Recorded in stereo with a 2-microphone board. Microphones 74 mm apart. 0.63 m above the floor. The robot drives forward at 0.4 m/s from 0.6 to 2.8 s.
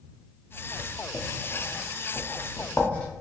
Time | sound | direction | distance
0.8 | writing | 20° left (ahead or behind) | 0.7 m